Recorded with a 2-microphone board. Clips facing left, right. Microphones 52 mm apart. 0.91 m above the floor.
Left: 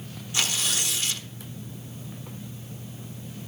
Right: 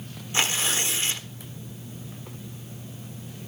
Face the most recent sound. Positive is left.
turn(degrees=-30)  # may be behind; listen again after turning